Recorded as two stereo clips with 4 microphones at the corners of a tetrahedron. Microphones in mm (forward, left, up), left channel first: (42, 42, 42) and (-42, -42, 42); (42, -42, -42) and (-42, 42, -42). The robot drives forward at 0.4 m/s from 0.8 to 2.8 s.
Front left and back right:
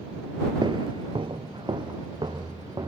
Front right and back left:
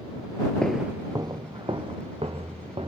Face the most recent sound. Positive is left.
turn(degrees=175)